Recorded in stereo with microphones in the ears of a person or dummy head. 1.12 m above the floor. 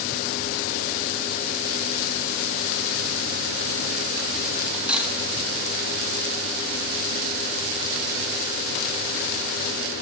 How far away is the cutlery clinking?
About 1.3 m.